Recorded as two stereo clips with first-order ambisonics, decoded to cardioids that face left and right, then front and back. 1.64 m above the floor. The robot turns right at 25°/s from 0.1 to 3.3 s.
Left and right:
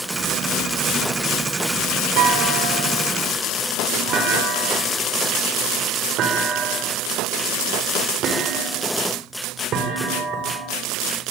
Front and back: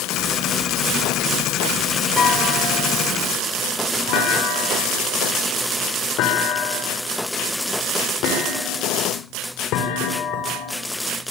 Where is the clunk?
65° right, 6 m; by 10.8 s 40° right, 6 m.